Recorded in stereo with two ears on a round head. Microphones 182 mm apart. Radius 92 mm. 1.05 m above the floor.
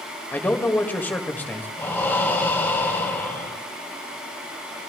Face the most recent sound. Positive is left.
turn(degrees=10)  # may be behind; listen again after turning